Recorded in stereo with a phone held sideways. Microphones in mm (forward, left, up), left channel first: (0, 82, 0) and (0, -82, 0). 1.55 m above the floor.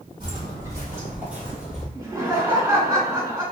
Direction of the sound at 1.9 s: 15° right (ahead or behind).